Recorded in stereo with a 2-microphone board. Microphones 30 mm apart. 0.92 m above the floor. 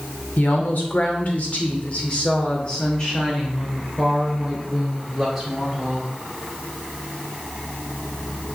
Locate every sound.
0.4 s a woman speaking: 70° left (ahead or behind), 2.5 m; by 6.1 s centre (ahead or behind), 4 m